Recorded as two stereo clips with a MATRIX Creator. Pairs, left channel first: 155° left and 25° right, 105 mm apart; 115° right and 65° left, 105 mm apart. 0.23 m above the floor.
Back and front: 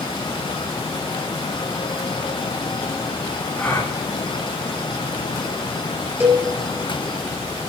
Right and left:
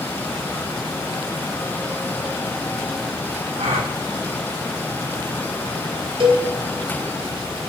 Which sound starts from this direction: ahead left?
A cowbell, at 6.2 s.